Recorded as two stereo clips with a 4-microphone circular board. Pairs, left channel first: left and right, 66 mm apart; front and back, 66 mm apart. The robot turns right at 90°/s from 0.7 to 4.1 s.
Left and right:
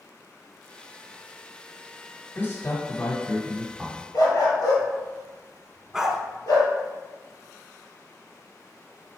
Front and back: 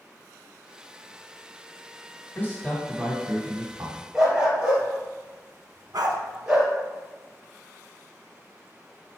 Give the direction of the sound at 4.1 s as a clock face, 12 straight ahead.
9 o'clock.